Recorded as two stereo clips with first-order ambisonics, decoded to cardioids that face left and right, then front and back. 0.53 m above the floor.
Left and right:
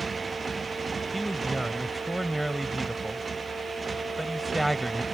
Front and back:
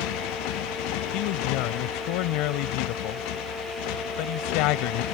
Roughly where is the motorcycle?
Ahead.